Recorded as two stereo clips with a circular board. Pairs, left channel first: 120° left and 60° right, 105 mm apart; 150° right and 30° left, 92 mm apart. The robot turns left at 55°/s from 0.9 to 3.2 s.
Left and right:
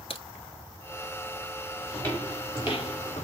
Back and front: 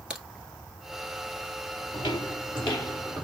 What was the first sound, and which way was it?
A crack, 110° left.